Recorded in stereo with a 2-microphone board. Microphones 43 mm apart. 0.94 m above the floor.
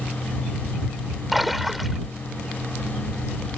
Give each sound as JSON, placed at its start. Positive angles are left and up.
{"t": 1.3, "sound": "a splash", "side_deg": -5}